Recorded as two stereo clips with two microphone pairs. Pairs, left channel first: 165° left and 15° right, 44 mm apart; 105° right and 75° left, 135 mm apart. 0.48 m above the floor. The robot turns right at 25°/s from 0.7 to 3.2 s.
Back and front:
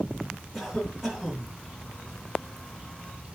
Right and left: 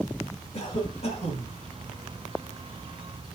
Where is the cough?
95° right, 1.7 m; by 1.5 s 75° right, 1.7 m.